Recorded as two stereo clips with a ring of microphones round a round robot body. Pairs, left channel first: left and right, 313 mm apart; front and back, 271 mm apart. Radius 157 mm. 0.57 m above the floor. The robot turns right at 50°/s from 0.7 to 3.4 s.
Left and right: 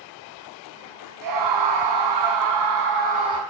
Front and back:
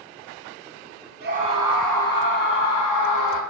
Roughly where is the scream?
Behind right.